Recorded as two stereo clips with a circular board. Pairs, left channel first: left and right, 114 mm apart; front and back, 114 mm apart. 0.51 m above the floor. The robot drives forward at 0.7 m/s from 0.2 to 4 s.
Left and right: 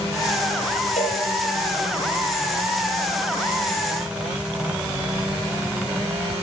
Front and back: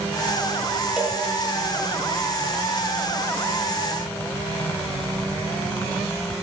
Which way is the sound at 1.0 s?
100° left.